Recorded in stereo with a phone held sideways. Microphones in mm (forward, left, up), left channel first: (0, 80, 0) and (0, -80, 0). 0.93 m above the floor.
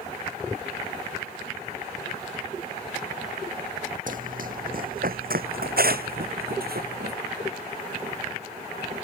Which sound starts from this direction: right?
Running footsteps, at 4.1 s.